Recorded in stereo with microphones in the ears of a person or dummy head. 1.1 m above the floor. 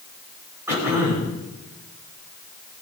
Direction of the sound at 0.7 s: 15° right (ahead or behind).